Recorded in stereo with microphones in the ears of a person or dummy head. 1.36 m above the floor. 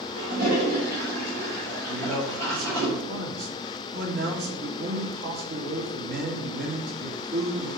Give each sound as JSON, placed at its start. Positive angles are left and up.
{"t": 0.2, "sound": "a toilet flushing", "side_deg": -85, "distance_m": 3.5}
{"t": 1.9, "sound": "a man speaking", "side_deg": -60, "distance_m": 2.5}